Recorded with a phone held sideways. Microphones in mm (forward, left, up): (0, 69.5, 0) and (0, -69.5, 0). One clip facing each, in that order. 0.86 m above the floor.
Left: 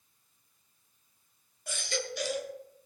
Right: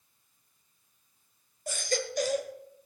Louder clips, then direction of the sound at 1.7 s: Right 4 dB; 45° right (ahead or behind).